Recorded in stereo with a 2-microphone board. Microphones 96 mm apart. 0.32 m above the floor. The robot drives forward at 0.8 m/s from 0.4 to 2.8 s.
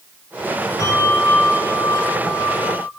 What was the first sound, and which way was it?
A bell, 45° left (ahead or behind).